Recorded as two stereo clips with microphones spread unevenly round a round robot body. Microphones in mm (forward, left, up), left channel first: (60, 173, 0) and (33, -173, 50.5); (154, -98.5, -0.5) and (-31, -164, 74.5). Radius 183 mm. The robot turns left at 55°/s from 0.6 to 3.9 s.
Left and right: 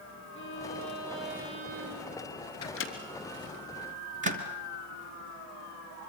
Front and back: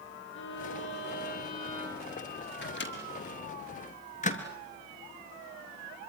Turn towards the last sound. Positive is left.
turn(degrees=-25)